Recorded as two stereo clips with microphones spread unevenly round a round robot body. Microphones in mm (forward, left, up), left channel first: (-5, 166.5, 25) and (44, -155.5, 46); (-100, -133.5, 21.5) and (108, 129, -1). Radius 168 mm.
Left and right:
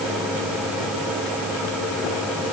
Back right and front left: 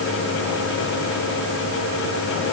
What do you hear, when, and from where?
Only background noise.